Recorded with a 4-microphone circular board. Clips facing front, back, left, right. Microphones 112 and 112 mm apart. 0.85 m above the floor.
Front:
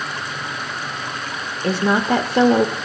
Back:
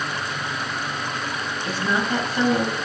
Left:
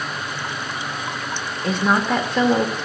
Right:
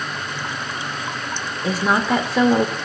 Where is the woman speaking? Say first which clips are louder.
Front 7 dB, even; straight ahead, 1.1 m.